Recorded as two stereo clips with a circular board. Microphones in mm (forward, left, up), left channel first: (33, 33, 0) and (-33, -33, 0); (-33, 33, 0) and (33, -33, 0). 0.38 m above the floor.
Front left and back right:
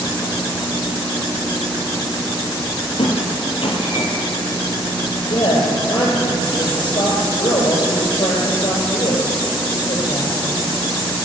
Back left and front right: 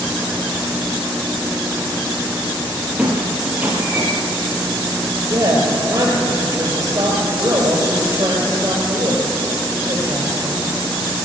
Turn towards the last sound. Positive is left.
turn(degrees=10)